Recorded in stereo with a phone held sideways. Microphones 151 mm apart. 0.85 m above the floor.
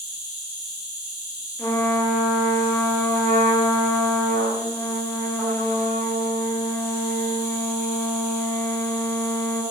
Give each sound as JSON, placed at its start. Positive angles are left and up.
{"t": 0.0, "sound": "an insect", "side_deg": -20, "distance_m": 0.8}
{"t": 1.6, "sound": "a trumpet", "side_deg": 10, "distance_m": 0.5}